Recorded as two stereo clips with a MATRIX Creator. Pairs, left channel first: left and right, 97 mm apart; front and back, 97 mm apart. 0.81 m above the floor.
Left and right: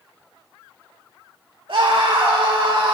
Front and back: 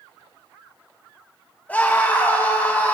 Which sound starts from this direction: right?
A scream, at 1.7 s.